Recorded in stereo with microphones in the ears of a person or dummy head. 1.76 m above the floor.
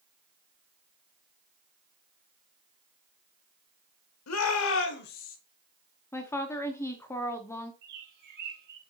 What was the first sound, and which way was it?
A shout, 80° left.